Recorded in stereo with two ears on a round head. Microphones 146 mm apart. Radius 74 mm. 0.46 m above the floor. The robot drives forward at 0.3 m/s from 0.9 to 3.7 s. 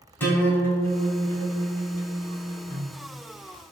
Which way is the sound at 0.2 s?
15° left (ahead or behind).